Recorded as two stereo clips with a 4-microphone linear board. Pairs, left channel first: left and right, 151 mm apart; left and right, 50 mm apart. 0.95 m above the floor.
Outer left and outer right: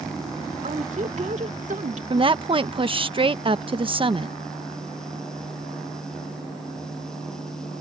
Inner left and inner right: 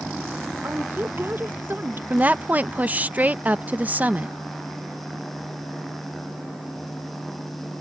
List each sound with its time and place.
0.6 s a woman speaking: 50° right (ahead or behind)
2.1 s a woman speaking: 35° right (ahead or behind)